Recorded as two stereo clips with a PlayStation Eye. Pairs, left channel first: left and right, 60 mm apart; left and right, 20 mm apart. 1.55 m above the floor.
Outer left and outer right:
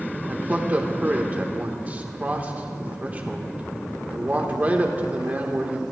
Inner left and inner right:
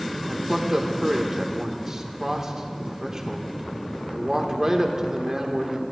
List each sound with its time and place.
0.3 s a man speaking: 30° right (ahead or behind), 1.3 m